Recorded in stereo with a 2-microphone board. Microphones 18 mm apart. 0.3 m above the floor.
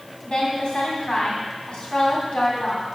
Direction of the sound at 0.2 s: 55° left (ahead or behind).